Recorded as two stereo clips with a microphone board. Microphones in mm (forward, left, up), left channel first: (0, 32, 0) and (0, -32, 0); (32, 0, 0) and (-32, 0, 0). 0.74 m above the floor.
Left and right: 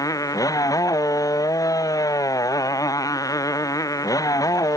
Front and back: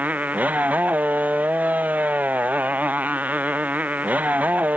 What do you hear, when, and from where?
0.0 s a motorcycle: 115° left